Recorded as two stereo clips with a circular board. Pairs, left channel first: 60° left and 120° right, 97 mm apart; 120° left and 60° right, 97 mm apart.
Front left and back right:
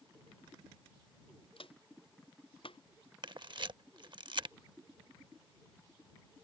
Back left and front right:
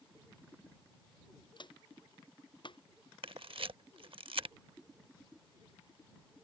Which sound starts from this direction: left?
Footsteps, at 1.6 s.